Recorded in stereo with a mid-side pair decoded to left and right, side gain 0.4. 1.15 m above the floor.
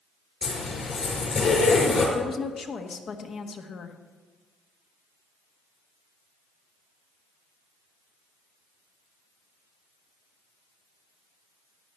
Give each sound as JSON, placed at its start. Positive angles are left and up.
{"t": 0.4, "sound": "a zipper", "azimuth_deg": 50, "distance_m": 5.0}
{"t": 2.1, "sound": "a woman speaking", "azimuth_deg": 60, "distance_m": 1.4}